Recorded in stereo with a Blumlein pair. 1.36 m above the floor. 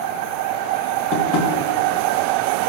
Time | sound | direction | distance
1.1 | tapping | 35° left | 1.8 m